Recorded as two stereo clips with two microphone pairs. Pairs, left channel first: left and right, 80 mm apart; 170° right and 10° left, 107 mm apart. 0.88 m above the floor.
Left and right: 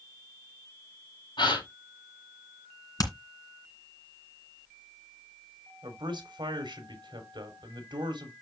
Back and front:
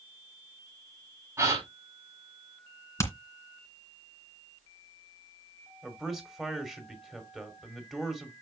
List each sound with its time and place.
1.4 s a gasp: 75° left, 5 m
3.0 s hammering: 130° left, 2.5 m
5.8 s a man speaking: 75° right, 3.5 m